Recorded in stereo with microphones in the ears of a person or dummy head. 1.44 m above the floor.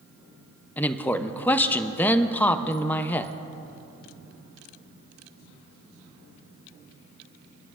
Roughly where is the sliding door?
No sliding door in this recording.